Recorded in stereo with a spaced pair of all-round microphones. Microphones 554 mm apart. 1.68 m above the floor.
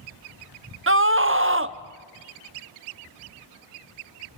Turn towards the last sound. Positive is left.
turn(degrees=-25)  # may be behind; listen again after turning